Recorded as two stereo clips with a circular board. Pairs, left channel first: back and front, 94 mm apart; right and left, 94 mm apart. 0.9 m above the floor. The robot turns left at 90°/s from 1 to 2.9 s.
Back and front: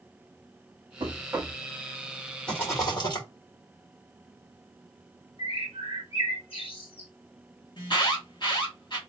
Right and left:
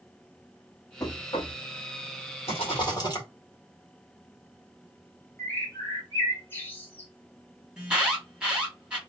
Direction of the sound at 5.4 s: 160° right.